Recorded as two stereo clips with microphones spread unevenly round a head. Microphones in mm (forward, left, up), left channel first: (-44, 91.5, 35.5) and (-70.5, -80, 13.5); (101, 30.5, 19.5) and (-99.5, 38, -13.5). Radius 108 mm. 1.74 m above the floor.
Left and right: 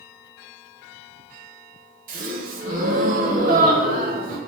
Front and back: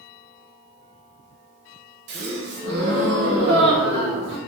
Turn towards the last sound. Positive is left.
turn(degrees=-140)